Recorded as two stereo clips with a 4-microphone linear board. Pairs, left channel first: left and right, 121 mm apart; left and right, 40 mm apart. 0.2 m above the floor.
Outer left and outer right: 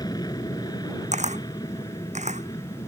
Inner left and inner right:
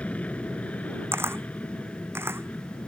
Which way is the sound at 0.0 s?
35° left (ahead or behind).